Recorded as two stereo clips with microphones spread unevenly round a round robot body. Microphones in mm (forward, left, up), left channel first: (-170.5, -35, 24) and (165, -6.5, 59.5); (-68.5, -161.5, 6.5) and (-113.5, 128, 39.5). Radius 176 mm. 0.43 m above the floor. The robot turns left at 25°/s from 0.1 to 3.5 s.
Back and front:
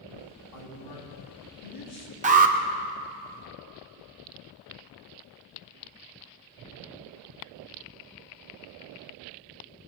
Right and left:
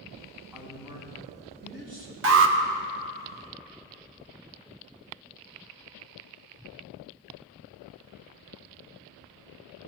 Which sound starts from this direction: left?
An alarm, at 2.2 s.